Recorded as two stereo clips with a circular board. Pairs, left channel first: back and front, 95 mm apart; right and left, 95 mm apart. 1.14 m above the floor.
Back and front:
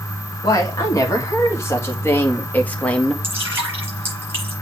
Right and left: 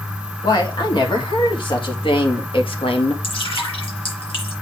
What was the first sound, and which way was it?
A woman speaking, 130° right.